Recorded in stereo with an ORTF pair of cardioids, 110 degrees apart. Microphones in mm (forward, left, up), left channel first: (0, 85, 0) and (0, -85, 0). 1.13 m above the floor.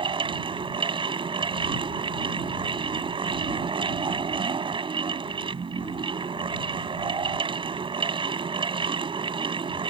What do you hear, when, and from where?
0.0 s a fan: 30° right